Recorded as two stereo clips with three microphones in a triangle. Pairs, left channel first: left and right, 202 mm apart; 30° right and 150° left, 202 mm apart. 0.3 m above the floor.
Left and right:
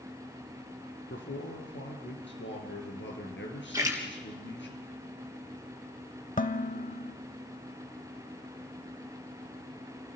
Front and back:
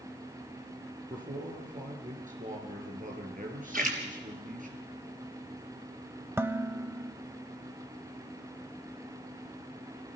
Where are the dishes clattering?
80° left, 0.7 m.